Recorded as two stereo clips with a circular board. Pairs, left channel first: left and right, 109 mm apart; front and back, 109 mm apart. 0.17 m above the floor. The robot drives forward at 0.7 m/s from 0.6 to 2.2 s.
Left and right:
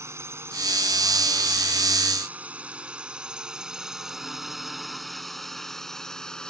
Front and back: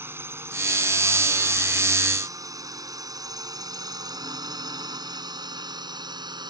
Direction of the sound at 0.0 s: 130° right.